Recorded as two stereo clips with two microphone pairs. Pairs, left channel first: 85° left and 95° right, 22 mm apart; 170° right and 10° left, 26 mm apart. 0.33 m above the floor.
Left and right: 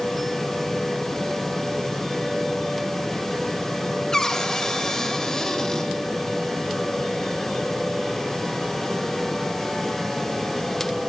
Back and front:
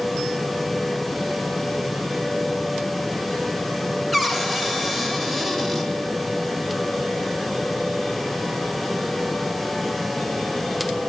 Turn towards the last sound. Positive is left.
turn(degrees=90)